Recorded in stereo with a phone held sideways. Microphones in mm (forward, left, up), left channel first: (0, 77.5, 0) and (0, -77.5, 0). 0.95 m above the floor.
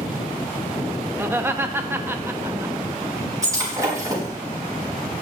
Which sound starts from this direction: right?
Breaking glass, at 3.4 s.